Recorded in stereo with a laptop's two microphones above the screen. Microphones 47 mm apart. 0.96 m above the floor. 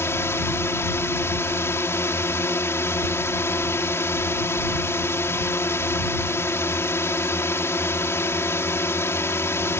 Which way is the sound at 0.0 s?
65° left (ahead or behind).